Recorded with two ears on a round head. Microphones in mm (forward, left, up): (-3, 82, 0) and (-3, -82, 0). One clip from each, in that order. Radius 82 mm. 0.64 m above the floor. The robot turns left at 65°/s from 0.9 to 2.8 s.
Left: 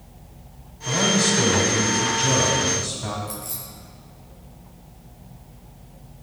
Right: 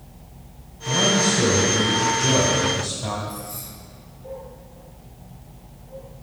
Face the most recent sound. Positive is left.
turn(degrees=75)  # may be behind; listen again after turning